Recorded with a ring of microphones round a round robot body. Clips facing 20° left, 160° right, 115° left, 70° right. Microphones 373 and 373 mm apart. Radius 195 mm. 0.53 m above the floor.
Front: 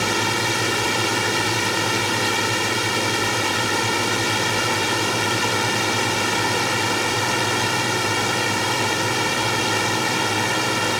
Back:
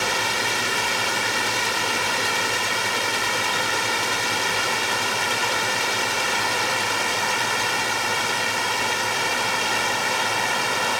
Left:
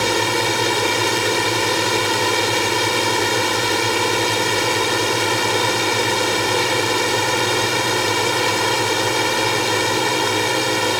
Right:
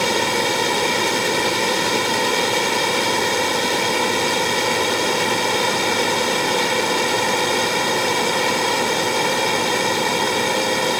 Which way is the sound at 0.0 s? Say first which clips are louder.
Front 5 dB, left 1 dB; 50° left.